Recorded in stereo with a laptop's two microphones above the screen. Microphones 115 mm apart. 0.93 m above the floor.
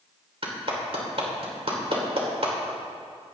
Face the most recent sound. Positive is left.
turn(degrees=-55)  # may be behind; listen again after turning